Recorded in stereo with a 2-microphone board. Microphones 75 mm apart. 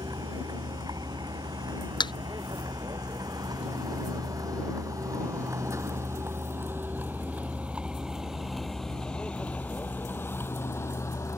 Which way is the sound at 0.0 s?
70° right (ahead or behind).